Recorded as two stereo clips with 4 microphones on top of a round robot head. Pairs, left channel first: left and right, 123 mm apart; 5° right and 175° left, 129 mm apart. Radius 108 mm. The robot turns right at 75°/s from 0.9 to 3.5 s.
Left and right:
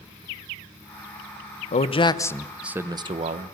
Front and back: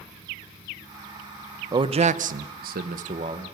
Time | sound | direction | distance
1.7 | a man speaking | 120° left | 1.2 m